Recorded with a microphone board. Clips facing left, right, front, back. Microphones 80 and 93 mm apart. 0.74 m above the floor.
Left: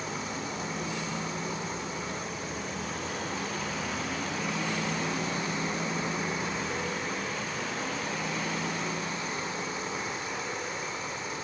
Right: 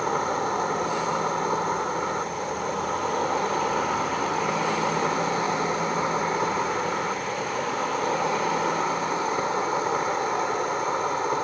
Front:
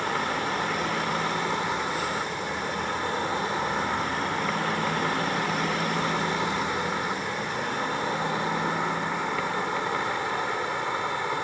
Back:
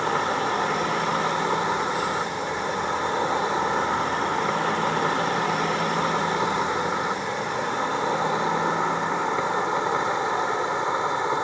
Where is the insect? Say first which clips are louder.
Right 11 dB, back 4 dB; 115° right.